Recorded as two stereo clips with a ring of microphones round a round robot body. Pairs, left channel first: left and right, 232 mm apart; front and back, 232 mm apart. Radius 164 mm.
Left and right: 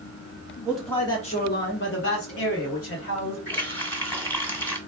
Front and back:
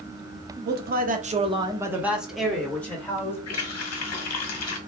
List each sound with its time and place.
0.7 s a man speaking: 170° right, 0.8 m; by 3.4 s 80° left, 1.8 m
3.5 s a running tap: 10° left, 1.3 m